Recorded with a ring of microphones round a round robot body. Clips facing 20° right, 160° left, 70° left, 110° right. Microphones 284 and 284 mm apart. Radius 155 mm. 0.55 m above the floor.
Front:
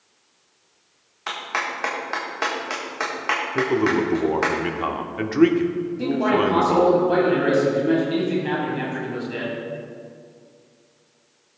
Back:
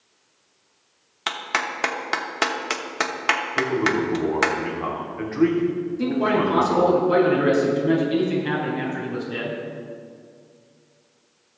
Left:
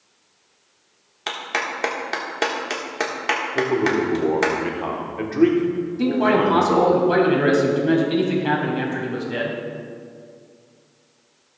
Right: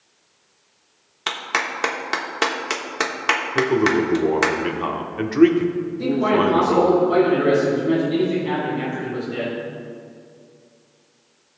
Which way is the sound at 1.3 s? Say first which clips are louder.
Back 1 dB, even; straight behind.